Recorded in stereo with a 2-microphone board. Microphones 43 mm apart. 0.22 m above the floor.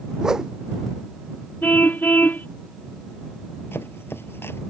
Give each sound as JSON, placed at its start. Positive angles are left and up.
{"t": 0.2, "sound": "a whoosh", "side_deg": -15}
{"t": 1.6, "sound": "a car horn", "side_deg": 50}
{"t": 3.7, "sound": "chopping", "side_deg": 75}